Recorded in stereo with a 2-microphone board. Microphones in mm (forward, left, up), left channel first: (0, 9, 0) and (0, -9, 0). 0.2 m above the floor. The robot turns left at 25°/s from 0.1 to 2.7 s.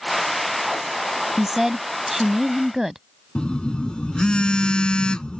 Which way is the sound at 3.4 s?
55° left (ahead or behind).